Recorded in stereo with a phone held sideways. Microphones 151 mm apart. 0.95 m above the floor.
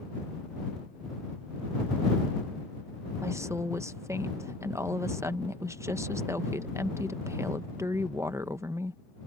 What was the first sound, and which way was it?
A woman speaking, 20° right (ahead or behind).